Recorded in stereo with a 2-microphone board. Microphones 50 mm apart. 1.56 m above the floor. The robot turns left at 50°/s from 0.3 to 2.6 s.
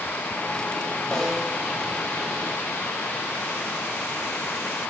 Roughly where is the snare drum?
Centre.